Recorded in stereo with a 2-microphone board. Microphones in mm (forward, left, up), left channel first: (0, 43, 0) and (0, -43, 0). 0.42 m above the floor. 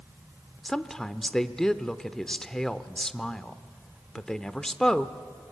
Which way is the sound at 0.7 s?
5° left (ahead or behind).